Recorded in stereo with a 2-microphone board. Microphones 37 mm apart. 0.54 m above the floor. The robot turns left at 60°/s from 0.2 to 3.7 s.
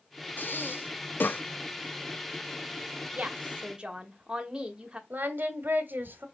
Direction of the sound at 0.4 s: 60° left (ahead or behind).